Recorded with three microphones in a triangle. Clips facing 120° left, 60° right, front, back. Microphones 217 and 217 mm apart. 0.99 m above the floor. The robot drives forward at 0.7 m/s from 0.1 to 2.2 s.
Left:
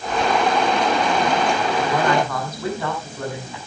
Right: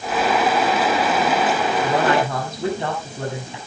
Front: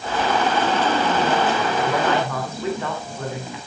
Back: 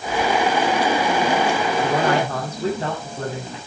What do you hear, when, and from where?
1.8 s a man speaking: 125° right, 7.5 m